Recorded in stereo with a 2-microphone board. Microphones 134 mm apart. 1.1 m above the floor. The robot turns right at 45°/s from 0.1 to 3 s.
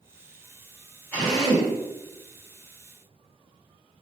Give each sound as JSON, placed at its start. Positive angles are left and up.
{"t": 1.1, "sound": "a drill", "side_deg": 10, "distance_m": 1.4}